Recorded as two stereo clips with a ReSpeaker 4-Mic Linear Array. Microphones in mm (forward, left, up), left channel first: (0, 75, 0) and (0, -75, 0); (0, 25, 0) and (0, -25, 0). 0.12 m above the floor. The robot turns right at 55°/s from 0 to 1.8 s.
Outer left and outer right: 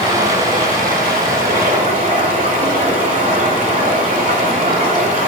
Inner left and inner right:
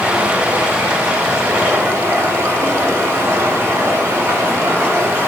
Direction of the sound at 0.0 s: 150° right.